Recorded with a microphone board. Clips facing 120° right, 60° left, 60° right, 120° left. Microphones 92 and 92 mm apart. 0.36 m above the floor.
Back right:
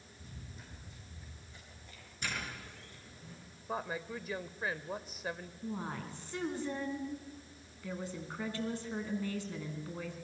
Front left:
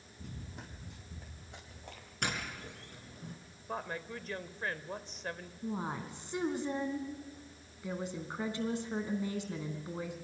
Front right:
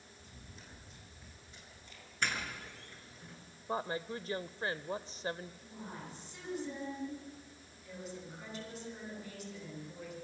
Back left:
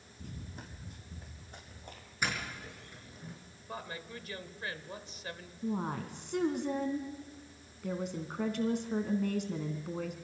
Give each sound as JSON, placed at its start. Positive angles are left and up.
{"t": 0.2, "sound": "running footsteps", "azimuth_deg": 85, "distance_m": 4.5}
{"t": 2.2, "sound": "a doorbell", "azimuth_deg": 40, "distance_m": 5.5}
{"t": 3.7, "sound": "a woman speaking", "azimuth_deg": -40, "distance_m": 1.0}
{"t": 5.6, "sound": "a woman speaking", "azimuth_deg": 130, "distance_m": 3.5}